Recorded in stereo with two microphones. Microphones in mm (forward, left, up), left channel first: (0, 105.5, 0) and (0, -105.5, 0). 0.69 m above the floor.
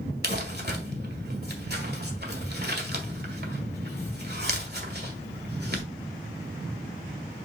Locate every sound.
0.2 s crumpling: 50° right (ahead or behind), 1.6 m